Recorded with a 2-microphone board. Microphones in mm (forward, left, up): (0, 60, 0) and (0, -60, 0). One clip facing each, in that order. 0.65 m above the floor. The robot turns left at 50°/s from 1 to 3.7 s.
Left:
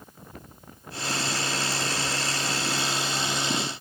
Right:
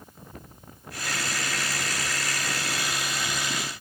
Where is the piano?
No piano in this recording.